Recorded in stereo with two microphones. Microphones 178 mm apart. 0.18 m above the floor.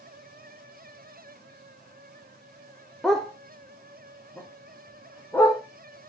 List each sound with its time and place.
3.0 s a dog barking: centre (ahead or behind), 1.1 m; by 5.6 s 15° left (ahead or behind), 2.5 m